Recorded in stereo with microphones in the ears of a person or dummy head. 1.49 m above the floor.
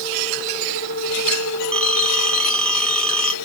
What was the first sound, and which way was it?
A phone ringing, 5° left (ahead or behind).